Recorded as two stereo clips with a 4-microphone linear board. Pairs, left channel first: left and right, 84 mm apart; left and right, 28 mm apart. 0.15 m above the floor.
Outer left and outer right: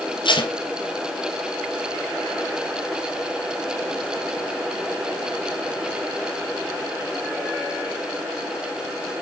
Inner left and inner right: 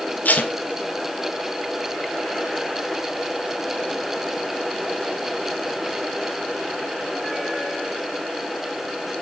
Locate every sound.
0.2 s tape being pulled: 70° left (ahead or behind), 2.5 m